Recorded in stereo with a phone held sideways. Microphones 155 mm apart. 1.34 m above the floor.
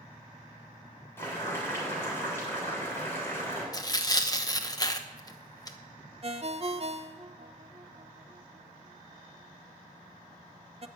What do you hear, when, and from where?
1.2 s boiling: 20° left (ahead or behind), 6.5 m
3.7 s tearing paper: 25° left (ahead or behind), 1.0 m
6.2 s a ringtone: 45° right (ahead or behind), 0.6 m